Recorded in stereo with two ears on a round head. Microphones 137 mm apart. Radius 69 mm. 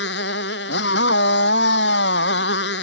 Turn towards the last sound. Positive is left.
turn(degrees=85)